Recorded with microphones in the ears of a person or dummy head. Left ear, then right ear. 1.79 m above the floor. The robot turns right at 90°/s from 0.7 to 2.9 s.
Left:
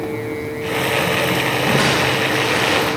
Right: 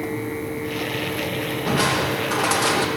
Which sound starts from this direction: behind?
Crushing, at 1.6 s.